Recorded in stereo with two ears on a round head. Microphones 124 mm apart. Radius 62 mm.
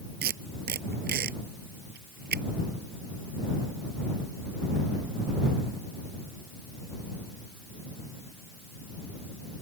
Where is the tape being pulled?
80° right.